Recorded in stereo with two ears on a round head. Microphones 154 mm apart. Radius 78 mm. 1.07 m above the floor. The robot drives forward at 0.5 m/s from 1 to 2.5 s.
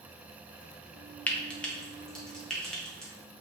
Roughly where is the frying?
Centre.